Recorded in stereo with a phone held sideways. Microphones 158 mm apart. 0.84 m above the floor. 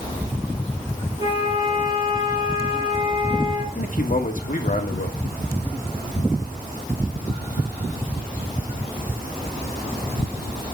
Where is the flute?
30° right (ahead or behind), 3 m.